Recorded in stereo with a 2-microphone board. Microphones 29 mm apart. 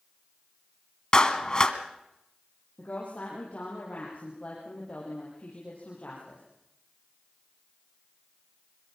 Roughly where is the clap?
Left.